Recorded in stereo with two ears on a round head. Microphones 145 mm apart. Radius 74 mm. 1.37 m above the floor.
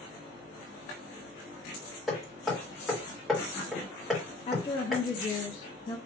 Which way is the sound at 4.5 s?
30° left (ahead or behind).